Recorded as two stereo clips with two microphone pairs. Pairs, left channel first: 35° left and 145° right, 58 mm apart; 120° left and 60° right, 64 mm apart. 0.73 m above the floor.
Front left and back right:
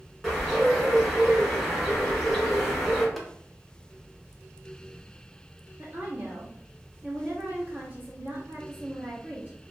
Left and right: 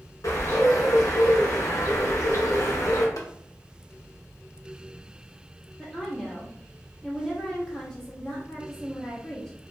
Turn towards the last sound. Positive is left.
turn(degrees=-160)